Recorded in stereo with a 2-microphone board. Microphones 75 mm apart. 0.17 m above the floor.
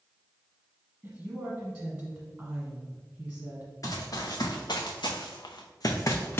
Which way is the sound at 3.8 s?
50° left (ahead or behind).